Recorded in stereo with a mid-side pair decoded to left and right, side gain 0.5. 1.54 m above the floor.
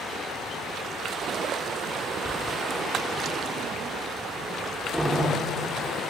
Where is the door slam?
10° right, 3 m.